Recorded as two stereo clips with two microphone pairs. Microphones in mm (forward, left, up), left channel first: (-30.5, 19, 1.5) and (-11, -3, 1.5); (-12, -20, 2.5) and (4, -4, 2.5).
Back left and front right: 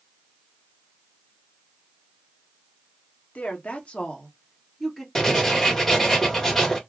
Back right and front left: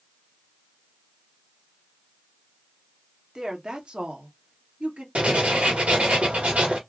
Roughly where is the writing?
Ahead left.